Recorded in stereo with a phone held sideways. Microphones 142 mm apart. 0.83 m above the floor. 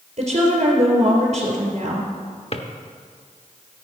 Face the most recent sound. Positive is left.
turn(degrees=45)  # may be behind; listen again after turning